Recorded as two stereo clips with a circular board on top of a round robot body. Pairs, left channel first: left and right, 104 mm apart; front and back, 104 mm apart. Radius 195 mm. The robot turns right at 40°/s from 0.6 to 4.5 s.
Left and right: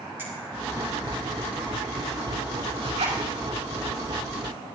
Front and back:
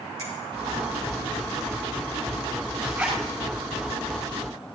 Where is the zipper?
105° right, 6.5 m; by 3.2 s 90° right, 6.5 m.